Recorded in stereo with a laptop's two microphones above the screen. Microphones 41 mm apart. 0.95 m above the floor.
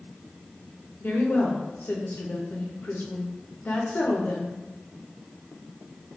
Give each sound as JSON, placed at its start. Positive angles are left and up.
{"t": 1.0, "sound": "a woman speaking", "side_deg": 55, "distance_m": 0.7}